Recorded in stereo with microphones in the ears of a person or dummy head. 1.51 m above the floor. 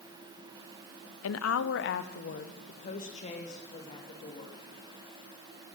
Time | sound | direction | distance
1.2 | a woman speaking | 80° left | 0.6 m